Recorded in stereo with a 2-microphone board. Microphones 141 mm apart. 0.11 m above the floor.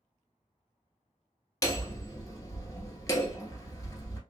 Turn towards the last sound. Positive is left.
turn(degrees=25)  # may be behind; listen again after turning